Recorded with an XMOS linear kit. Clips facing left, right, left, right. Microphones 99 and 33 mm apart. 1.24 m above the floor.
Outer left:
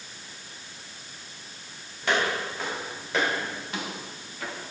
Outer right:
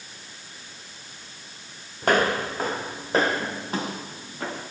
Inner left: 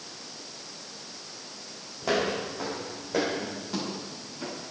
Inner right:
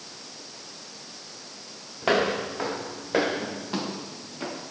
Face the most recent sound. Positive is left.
turn(degrees=-35)  # may be behind; listen again after turning